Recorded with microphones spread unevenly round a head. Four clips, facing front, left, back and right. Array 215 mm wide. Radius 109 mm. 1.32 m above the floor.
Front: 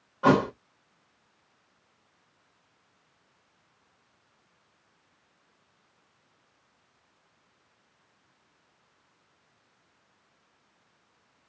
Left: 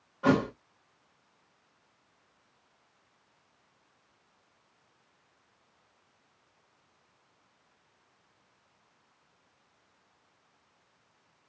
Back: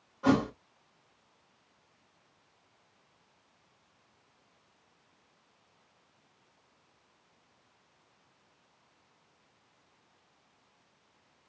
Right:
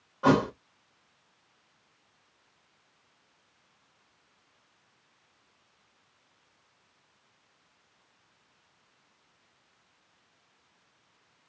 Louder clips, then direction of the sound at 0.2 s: Right 2 dB, front 5 dB; 25° right.